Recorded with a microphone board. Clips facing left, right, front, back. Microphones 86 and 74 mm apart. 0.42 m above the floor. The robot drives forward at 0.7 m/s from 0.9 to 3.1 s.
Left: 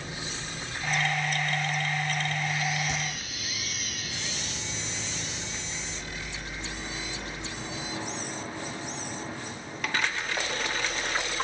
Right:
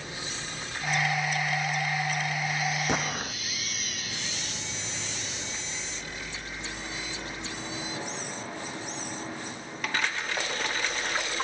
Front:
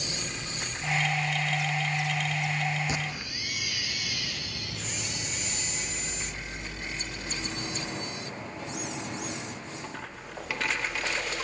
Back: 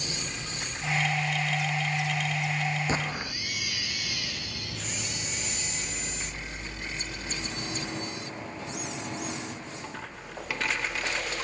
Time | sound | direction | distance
2.9 | an explosion | 125° right | ?